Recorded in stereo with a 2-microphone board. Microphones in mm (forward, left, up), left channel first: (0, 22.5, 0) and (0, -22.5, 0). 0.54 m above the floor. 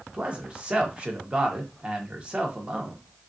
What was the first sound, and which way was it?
A man speaking, 30° right (ahead or behind).